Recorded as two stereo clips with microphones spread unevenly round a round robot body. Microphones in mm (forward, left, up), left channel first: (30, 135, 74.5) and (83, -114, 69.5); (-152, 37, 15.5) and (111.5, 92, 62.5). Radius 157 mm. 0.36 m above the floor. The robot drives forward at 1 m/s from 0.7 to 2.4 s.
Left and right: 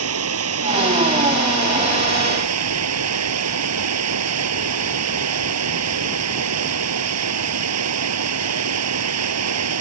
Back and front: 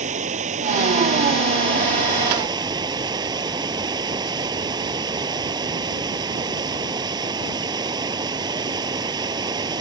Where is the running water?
55° right; by 9.8 s 65° right.